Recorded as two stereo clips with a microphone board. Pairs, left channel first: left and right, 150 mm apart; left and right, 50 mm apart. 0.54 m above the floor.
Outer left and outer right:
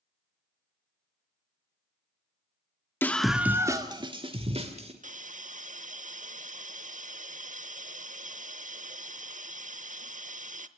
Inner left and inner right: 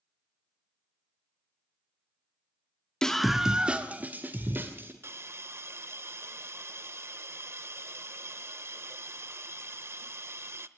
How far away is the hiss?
About 0.8 m.